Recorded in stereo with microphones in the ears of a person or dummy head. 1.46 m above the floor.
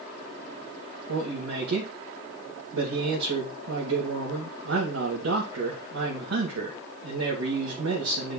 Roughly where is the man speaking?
Right.